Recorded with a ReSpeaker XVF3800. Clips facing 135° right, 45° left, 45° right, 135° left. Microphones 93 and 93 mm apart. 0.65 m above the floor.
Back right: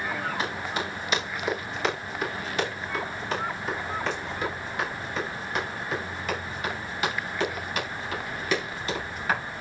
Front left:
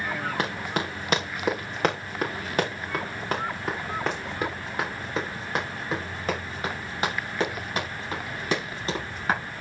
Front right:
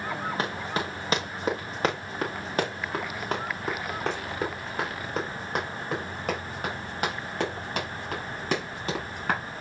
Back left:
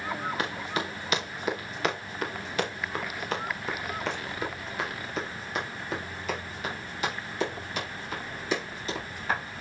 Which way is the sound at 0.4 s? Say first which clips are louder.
Front left 2 dB, front right 2 dB; 10° left.